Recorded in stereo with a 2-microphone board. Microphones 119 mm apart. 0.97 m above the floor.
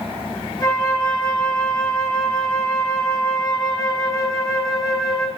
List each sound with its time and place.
0.6 s a flute: 30° left (ahead or behind), 6 m